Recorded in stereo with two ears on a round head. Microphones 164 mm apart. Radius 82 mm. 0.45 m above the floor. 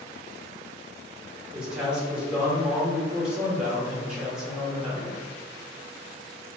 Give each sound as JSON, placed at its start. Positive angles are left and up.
{"t": 1.5, "sound": "a man speaking", "side_deg": -5, "distance_m": 0.9}